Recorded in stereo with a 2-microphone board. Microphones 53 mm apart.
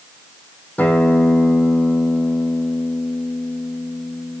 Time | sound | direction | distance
0.8 | a guitar | 30° left (ahead or behind) | 2.5 m